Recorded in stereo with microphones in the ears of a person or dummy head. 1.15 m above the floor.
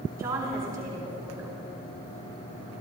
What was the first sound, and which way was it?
A woman speaking, 20° right (ahead or behind).